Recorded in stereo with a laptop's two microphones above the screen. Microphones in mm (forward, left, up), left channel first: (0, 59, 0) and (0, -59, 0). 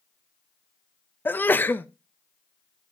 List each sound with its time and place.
1.2 s a sneeze: 15° left (ahead or behind), 0.7 m